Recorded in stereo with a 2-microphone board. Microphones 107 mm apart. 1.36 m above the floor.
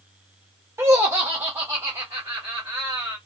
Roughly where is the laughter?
Right.